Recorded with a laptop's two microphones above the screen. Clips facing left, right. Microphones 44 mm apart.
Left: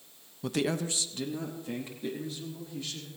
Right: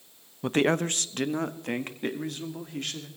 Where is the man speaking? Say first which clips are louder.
Right 6 dB; 30° right (ahead or behind), 0.6 m; by 3.1 s 60° right (ahead or behind), 2 m.